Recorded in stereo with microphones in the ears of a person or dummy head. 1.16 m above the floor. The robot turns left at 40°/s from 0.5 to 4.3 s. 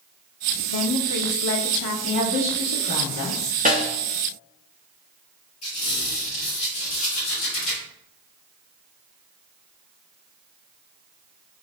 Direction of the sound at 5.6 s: 30° left (ahead or behind).